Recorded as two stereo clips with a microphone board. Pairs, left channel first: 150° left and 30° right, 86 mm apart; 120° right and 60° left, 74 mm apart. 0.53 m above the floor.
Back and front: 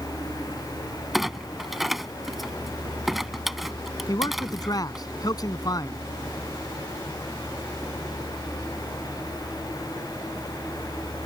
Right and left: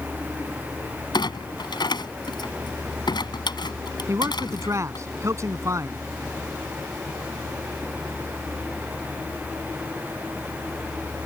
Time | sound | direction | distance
1.1 | a clunk | 120° right | ?
4.1 | a man speaking | 110° left | ?